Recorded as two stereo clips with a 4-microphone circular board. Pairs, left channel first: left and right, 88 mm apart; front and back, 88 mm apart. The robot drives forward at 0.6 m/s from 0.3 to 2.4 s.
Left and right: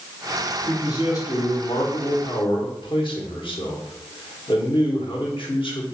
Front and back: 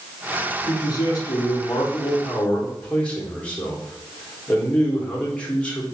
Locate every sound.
0.7 s a man speaking: 40° left, 1.7 m; by 5.9 s 75° left, 1.1 m